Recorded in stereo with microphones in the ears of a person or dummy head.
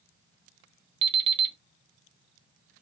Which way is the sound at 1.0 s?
30° right (ahead or behind).